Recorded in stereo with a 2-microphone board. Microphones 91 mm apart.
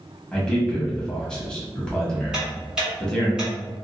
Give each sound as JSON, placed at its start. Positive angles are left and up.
{"t": 0.3, "sound": "a man speaking", "side_deg": 10, "distance_m": 1.1}
{"t": 2.3, "sound": "ticking", "side_deg": -10, "distance_m": 1.9}